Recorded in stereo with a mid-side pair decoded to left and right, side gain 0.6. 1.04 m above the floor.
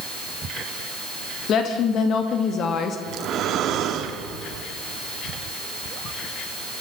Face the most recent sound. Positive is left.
turn(degrees=-55)